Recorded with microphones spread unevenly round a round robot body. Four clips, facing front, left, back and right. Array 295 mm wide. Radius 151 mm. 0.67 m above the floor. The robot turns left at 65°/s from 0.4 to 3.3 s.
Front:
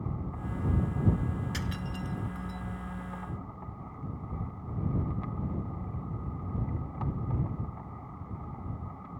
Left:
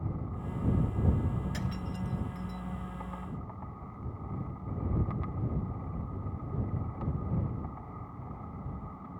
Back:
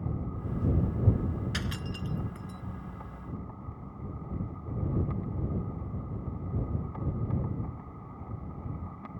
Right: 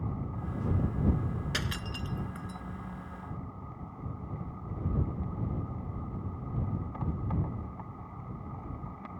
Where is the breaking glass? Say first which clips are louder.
Even, even; 100° right; by 2.6 s 170° right.